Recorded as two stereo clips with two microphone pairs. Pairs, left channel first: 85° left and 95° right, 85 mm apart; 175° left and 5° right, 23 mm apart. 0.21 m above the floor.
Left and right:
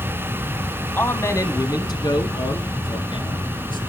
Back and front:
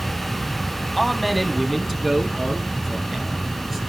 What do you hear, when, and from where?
1.0 s a man speaking: 95° left, 1.1 m; by 3.8 s 85° left, 3.5 m